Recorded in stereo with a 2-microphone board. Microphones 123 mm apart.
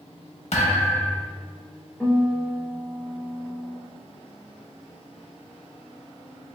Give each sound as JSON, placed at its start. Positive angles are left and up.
{"t": 0.5, "sound": "a thud", "side_deg": 65, "distance_m": 0.8}
{"t": 2.0, "sound": "a guitar", "side_deg": 5, "distance_m": 1.4}